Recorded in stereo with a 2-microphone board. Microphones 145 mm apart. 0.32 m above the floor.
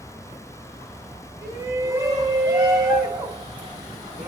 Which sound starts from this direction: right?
A shout, at 1.4 s.